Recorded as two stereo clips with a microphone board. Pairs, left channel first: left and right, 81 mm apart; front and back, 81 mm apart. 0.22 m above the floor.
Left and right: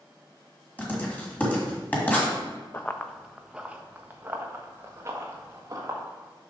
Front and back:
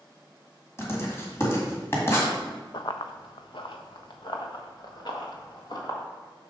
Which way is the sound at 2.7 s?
30° left.